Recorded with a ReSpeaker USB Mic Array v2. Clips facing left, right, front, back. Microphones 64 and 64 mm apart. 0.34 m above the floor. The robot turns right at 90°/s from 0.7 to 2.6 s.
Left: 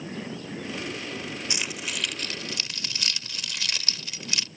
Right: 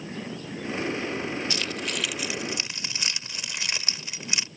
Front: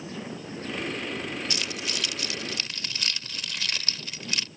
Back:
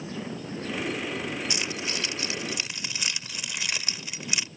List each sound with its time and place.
1.5 s keys jangling: 135° left; by 4.5 s 125° right